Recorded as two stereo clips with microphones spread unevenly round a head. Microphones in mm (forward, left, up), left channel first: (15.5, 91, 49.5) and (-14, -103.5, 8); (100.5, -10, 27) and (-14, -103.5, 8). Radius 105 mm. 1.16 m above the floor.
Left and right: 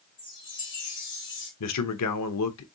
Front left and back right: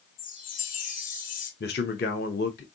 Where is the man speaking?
85° left, 0.8 m.